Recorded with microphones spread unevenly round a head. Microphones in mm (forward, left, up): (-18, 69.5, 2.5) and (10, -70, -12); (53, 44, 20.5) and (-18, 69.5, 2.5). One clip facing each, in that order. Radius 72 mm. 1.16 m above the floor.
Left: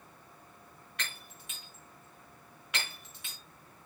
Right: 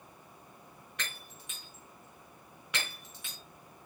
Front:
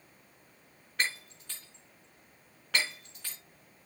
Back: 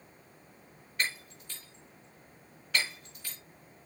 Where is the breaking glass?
80° right, 4.5 m.